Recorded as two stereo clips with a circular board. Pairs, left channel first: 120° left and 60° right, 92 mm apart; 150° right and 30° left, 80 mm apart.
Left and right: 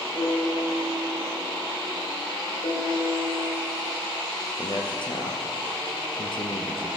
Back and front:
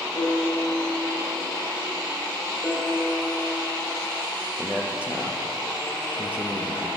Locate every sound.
0.1 s a piano: straight behind, 4 m
2.6 s a piano: 130° left, 4 m
4.6 s a man speaking: 105° left, 2 m